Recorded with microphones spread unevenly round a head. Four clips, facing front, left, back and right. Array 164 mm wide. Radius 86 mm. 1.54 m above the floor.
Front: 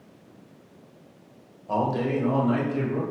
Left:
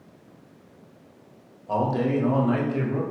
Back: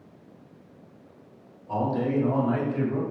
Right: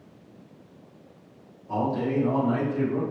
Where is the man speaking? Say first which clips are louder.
Left 2 dB, front 1 dB; 50° left, 1.6 m; by 3.0 s 95° left, 1.9 m.